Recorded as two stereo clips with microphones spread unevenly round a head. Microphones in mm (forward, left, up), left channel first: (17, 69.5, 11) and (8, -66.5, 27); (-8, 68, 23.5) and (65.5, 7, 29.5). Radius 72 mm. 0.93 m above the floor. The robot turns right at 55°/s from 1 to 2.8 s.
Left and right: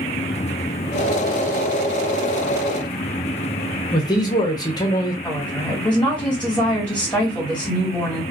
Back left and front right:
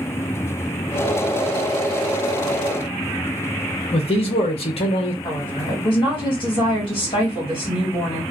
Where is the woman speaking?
165° left, 1.6 m.